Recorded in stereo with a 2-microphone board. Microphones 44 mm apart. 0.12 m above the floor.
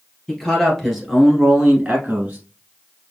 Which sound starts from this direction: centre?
A man speaking, at 0.3 s.